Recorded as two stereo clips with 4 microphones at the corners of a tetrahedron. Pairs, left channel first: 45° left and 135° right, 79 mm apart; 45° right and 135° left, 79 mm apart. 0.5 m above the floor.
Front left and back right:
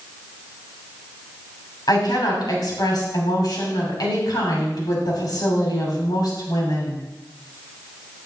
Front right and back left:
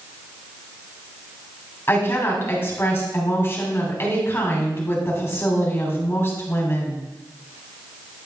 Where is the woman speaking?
15° left, 3 m.